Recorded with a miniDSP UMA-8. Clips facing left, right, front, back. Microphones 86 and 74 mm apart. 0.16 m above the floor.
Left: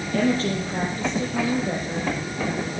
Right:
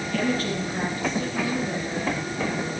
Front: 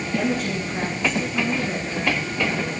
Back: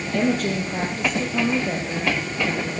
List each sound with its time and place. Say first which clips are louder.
0.1 s a woman speaking: left 4 dB, back 3 dB; 150° left, 4 m